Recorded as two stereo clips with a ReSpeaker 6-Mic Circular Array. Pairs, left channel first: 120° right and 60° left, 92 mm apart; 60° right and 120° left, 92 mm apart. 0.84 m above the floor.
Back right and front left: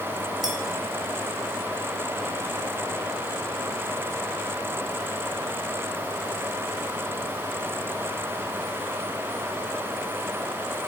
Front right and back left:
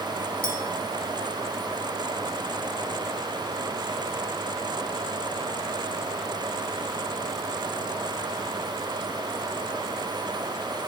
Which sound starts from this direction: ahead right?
A clink, at 0.4 s.